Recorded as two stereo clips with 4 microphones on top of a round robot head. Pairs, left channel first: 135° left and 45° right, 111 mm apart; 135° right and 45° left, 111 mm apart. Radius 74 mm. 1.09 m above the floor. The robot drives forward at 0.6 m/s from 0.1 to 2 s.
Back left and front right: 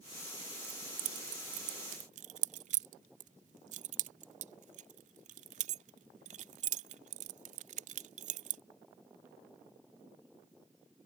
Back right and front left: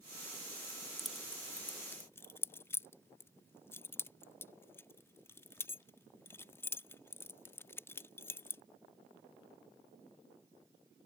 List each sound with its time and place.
0.6 s keys jangling: 40° right; by 8.6 s 60° right